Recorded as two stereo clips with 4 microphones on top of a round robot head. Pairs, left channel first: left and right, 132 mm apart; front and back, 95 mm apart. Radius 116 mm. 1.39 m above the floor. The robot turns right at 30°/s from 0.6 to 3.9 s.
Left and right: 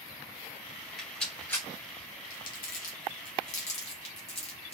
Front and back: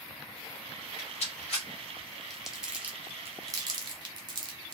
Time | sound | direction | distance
1.0 | a rattle | straight ahead | 3 m
2.3 | crumpling | 90° left | 1.4 m